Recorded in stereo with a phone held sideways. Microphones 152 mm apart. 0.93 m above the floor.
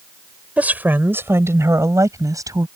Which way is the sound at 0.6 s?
10° right (ahead or behind).